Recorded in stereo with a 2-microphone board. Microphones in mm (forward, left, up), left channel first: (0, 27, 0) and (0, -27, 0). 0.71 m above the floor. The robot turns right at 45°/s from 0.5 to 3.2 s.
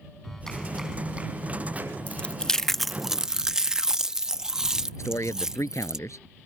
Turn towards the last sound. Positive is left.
turn(degrees=70)  # may be behind; listen again after turning